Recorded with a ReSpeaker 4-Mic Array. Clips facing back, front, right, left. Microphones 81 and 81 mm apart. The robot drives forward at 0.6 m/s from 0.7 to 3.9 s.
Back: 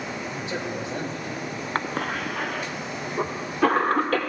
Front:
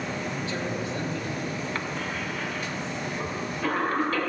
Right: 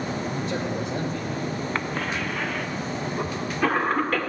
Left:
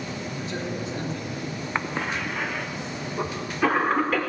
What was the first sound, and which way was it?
A man speaking, 110° right.